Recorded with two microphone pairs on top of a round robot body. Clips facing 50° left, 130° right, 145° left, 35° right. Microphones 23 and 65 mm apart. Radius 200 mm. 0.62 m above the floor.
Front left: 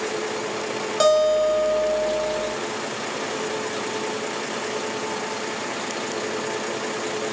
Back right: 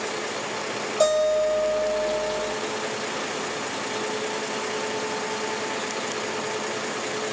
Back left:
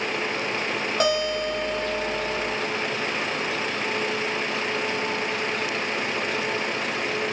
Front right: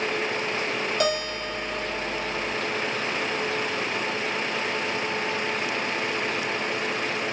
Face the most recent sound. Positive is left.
turn(degrees=90)